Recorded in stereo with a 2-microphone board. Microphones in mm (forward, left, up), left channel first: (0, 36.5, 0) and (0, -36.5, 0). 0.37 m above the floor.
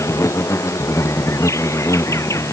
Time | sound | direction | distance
0.0 | an insect | 40° left (ahead or behind) | ?